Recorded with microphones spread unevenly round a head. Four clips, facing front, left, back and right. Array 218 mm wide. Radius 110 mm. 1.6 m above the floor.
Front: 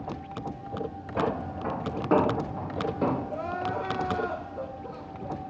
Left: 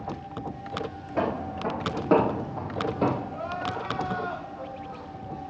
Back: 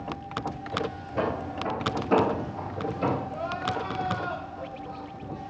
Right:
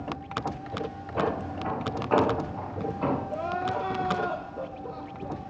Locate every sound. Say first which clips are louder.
1.2 s footsteps: left 1 dB, even; 75° left, 5.5 m; by 3.2 s 60° left, 4 m
3.3 s crying: right 3 dB, even; 40° right, 1.7 m